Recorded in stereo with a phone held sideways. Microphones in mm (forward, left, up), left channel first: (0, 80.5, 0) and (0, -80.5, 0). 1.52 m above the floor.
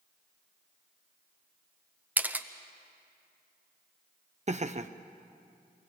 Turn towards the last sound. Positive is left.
turn(degrees=-45)  # may be behind; listen again after turning